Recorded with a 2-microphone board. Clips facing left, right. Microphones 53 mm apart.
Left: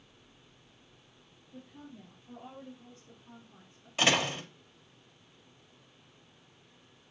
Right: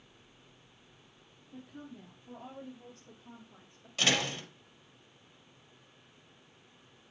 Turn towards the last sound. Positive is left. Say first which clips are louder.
# left 3 dB
turn(degrees=25)  # may be behind; listen again after turning